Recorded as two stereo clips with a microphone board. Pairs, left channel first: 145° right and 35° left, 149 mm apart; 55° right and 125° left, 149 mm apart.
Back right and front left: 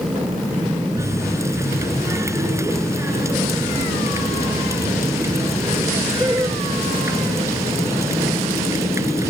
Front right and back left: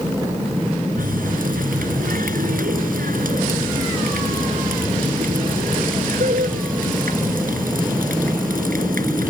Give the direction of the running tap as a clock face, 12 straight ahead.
9 o'clock.